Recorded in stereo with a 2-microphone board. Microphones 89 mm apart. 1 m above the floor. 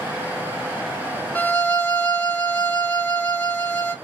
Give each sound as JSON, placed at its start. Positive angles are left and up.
{"t": 1.4, "sound": "a violin", "side_deg": 15, "distance_m": 1.0}